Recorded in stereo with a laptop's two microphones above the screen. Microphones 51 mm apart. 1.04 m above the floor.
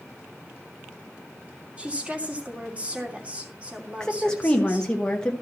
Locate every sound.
1.8 s a woman speaking: 25° right (ahead or behind), 2.5 m
4.0 s a woman speaking: 15° left (ahead or behind), 1.0 m